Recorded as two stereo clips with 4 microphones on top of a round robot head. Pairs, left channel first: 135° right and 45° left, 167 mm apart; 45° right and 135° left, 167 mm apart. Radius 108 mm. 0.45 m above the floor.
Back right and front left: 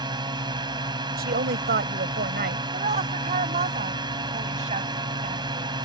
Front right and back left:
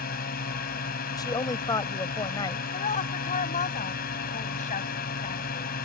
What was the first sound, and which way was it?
A drone, 15° right.